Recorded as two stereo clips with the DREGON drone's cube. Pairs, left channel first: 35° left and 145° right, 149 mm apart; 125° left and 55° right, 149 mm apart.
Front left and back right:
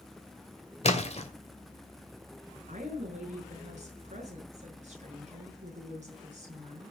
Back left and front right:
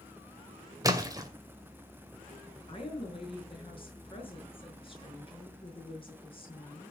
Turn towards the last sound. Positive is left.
turn(degrees=175)